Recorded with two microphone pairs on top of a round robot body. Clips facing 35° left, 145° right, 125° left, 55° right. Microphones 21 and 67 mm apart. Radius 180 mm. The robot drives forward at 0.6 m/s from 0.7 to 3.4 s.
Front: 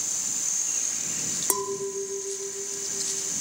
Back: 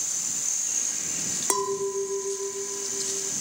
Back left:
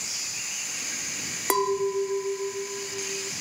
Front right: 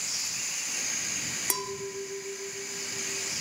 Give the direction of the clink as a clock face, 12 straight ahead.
7 o'clock.